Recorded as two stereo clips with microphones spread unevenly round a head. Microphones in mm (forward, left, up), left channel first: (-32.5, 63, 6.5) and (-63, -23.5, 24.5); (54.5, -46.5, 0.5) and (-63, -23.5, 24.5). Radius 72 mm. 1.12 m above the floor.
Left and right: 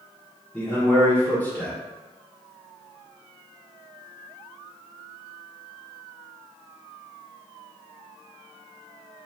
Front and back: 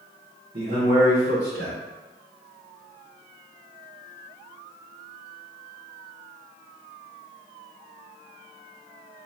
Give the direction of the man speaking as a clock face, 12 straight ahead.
7 o'clock.